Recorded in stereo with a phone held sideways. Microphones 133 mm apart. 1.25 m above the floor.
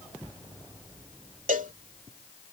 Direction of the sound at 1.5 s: 75° right (ahead or behind).